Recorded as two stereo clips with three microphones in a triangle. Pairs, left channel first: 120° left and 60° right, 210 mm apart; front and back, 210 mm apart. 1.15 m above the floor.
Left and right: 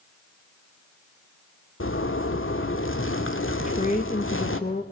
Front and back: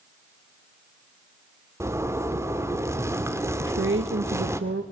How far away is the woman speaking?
About 1.7 m.